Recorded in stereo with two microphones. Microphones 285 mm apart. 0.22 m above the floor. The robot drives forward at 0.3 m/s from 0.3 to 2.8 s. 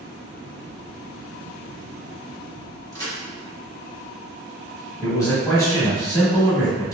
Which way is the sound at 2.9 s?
15° left (ahead or behind).